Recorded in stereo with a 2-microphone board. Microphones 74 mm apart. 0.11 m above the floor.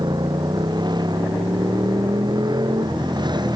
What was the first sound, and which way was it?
A motorcycle, 80° right.